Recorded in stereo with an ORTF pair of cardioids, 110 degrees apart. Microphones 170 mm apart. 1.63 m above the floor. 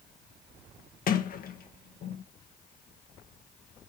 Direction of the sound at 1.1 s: 55° left.